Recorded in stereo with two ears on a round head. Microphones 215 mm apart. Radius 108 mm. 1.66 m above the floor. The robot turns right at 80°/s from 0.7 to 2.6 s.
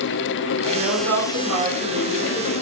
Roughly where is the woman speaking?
Behind right.